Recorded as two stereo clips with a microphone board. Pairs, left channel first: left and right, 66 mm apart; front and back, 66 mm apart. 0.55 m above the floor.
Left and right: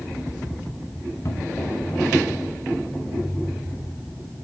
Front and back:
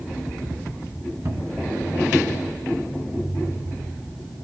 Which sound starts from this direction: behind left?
A cupboard door, at 1.2 s.